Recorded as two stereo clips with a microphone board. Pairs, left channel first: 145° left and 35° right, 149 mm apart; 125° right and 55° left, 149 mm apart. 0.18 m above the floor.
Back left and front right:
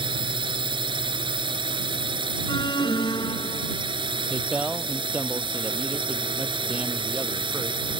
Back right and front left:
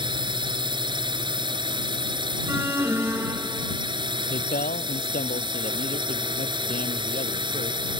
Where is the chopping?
I don't hear chopping.